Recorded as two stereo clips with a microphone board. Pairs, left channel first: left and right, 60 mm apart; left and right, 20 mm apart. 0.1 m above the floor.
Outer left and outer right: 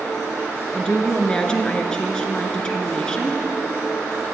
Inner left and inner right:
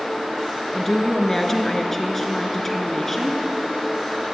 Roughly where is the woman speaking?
Centre.